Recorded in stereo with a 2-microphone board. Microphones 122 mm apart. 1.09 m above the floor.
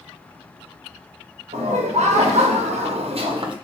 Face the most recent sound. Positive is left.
turn(degrees=-40)  # may be behind; listen again after turning